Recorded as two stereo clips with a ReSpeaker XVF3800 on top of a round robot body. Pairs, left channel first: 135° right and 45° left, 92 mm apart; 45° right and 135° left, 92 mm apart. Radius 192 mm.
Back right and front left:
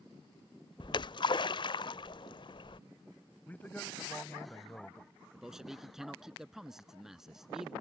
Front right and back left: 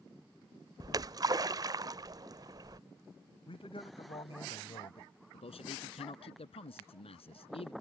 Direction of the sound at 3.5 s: 65° right.